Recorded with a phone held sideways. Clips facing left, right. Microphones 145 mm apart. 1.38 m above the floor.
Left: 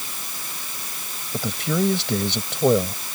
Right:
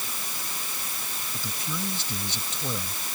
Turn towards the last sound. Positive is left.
turn(degrees=75)  # may be behind; listen again after turning